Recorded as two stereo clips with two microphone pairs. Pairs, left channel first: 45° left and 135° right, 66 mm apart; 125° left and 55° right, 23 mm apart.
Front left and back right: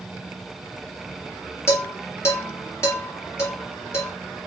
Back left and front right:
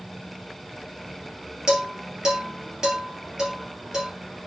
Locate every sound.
1.7 s dishes clattering: straight ahead, 2.5 m